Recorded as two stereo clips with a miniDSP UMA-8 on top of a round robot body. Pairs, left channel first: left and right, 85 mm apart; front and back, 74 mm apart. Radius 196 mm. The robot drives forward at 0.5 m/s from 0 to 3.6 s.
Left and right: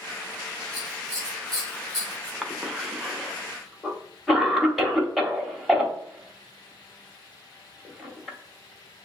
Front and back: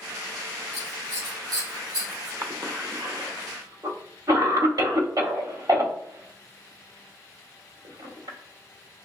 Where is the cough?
175° right, 0.9 m; by 8.4 s straight behind, 1.3 m.